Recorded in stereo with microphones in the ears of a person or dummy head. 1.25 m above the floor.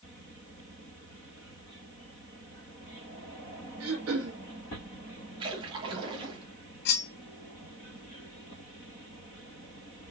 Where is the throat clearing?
85° right, 1.7 m.